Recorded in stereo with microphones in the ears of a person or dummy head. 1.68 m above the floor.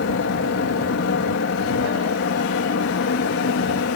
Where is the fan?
70° left (ahead or behind).